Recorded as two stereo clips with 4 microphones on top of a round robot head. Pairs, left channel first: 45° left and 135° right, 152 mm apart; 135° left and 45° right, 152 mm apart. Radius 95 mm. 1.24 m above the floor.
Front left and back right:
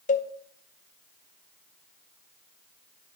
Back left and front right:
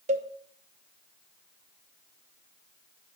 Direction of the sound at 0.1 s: 5° left.